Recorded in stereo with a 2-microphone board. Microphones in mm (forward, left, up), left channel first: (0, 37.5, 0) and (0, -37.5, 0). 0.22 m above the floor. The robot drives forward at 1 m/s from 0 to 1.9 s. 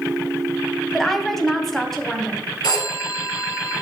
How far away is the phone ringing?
About 2.5 m.